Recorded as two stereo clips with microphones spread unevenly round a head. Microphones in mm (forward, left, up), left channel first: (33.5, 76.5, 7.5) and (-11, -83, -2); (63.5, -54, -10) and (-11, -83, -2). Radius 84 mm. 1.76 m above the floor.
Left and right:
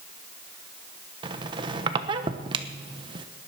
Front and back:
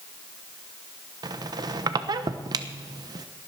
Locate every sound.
1.2 s a squeak: 165° right, 1.0 m